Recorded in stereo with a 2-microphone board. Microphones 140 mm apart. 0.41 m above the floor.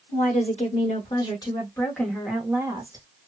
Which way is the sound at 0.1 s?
55° left (ahead or behind).